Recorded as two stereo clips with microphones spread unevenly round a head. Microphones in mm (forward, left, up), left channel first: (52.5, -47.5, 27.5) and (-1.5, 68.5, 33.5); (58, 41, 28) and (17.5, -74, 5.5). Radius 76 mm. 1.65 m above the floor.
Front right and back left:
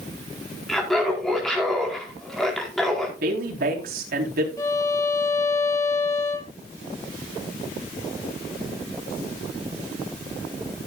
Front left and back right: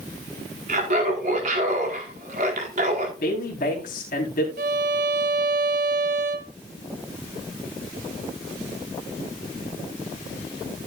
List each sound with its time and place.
0.7 s laughter: 155° right, 4.5 m
3.2 s a woman speaking: 110° left, 4 m
4.6 s a violin: 135° right, 1.0 m